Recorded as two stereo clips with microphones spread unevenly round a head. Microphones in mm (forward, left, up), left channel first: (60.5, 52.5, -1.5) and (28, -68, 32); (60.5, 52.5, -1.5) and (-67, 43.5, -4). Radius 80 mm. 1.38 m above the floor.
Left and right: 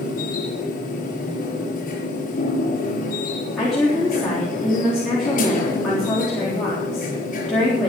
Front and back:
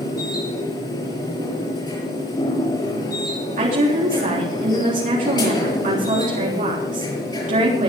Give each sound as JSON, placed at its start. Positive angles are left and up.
{"t": 0.0, "sound": "a machine running", "azimuth_deg": 60, "distance_m": 6.5}
{"t": 3.6, "sound": "a woman speaking", "azimuth_deg": 165, "distance_m": 3.5}